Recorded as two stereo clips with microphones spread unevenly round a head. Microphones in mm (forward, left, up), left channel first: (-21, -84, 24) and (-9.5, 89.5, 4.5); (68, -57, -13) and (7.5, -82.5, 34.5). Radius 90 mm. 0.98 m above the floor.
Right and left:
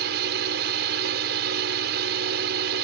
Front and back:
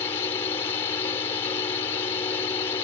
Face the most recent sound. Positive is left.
turn(degrees=60)